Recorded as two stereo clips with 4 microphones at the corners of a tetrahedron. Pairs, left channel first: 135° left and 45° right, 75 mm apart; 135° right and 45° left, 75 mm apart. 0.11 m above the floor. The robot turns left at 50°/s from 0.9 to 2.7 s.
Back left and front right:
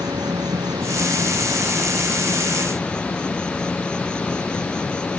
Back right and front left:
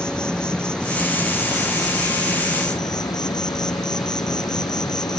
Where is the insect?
55° right; by 5.2 s 145° right.